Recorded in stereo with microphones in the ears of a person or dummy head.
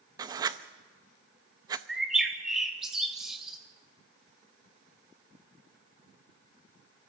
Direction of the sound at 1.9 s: Centre (ahead or behind).